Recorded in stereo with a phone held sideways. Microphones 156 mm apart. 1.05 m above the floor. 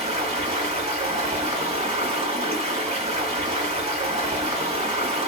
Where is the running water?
45° right (ahead or behind), 1.3 m.